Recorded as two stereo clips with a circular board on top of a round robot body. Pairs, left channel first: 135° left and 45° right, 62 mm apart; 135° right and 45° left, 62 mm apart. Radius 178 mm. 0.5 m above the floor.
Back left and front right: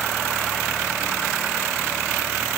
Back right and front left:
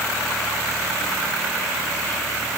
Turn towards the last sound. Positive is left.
No sound to turn to.